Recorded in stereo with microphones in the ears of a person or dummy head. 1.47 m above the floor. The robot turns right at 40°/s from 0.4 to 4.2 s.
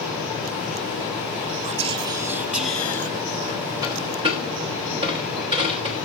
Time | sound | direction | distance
1.6 | whispering | 30° right | 0.6 m
3.8 | a dropped coin | 15° right (ahead or behind) | 1.1 m